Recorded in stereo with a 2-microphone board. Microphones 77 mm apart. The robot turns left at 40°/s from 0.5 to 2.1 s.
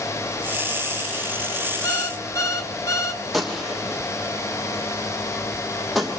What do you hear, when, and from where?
1.8 s an alarm clock: 40° left (ahead or behind), 1.0 m
3.3 s a gunshot: centre (ahead or behind), 3 m